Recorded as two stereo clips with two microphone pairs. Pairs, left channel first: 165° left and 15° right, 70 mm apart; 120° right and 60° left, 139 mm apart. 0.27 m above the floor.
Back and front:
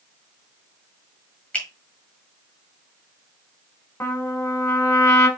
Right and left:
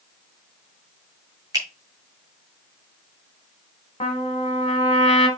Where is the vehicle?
No vehicle in this recording.